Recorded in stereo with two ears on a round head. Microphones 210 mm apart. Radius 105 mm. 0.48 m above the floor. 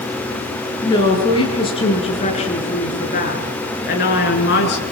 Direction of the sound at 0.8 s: 15° left (ahead or behind).